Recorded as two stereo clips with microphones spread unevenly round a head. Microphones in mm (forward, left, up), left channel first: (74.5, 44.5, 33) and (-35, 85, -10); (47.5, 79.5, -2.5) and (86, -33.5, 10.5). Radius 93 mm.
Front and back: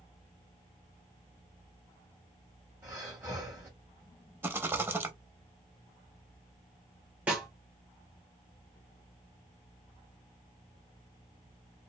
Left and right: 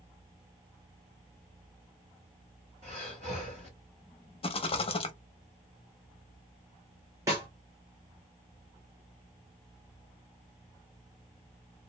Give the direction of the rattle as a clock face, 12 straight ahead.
9 o'clock.